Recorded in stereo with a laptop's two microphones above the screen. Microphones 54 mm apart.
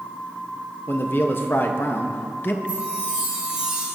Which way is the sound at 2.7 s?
20° right (ahead or behind).